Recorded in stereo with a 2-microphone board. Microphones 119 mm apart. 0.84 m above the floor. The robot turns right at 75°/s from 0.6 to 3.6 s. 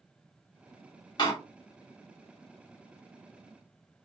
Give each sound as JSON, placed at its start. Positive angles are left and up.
{"t": 1.2, "sound": "a door slam", "side_deg": 40, "distance_m": 1.0}